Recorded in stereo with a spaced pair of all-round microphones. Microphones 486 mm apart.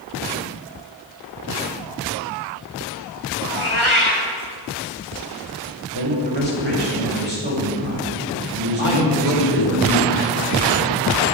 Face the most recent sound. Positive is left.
turn(degrees=85)